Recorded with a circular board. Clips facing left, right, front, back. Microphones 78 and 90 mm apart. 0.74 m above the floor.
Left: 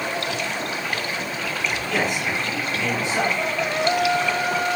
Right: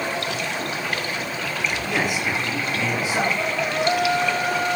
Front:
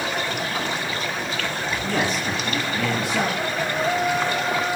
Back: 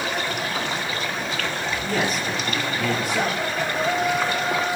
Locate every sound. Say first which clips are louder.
1.8 s a man speaking: even, front 1 dB; 10° right, 9 m